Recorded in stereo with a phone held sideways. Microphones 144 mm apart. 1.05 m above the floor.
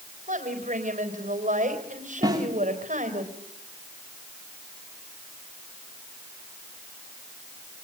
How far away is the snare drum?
About 3 m.